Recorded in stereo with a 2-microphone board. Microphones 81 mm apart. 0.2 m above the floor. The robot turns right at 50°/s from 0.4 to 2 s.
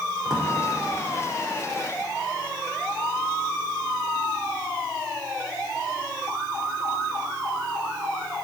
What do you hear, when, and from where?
0.2 s a drawer: centre (ahead or behind), 4.5 m; by 0.5 s 5° left (ahead or behind), 4.5 m